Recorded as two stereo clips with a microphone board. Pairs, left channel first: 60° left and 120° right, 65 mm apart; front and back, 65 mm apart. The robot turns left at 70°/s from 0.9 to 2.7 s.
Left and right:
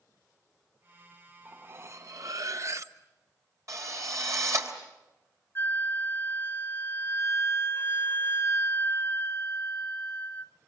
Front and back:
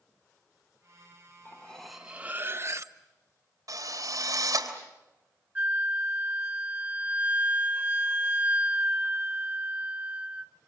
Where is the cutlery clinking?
60° right, 0.9 m; by 3.0 s 150° right, 0.9 m.